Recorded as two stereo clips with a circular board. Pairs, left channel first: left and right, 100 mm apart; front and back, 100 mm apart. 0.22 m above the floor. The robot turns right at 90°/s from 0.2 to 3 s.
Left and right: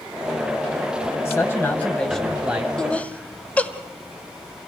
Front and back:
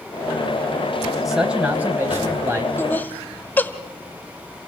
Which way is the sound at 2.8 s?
15° left.